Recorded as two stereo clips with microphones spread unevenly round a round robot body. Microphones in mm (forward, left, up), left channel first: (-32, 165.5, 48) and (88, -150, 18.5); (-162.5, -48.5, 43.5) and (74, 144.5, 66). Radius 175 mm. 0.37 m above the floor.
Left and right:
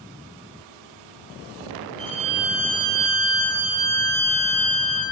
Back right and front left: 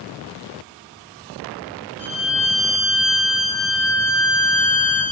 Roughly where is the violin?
Ahead right.